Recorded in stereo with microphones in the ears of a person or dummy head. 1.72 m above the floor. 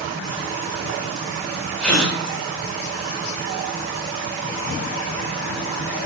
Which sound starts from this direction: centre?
A gasp, at 1.8 s.